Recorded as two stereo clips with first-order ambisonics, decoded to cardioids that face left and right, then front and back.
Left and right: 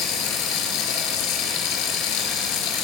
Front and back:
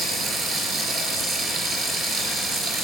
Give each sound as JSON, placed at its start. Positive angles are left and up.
{"t": 0.0, "sound": "running water", "azimuth_deg": 115, "distance_m": 4.5}